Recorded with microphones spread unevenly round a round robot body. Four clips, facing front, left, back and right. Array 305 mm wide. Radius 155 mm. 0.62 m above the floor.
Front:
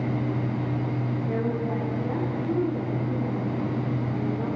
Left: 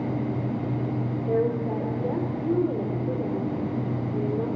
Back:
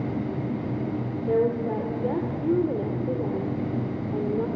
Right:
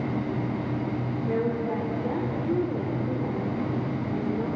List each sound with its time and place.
1.3 s a woman speaking: 160° left, 2 m